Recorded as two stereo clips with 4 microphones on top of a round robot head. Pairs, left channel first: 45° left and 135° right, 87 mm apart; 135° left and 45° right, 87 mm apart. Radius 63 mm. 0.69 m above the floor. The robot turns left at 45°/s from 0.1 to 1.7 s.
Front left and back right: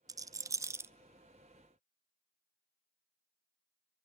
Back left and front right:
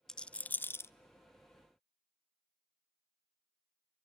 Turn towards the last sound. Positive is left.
turn(degrees=145)